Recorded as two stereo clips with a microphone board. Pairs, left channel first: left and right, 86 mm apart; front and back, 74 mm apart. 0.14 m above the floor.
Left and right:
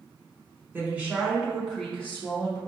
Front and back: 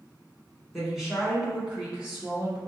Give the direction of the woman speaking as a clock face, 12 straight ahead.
3 o'clock.